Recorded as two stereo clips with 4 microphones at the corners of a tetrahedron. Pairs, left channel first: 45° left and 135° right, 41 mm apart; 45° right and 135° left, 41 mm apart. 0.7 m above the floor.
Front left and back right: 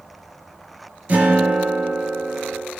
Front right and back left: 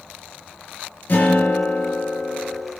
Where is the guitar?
85° right, 4.5 m.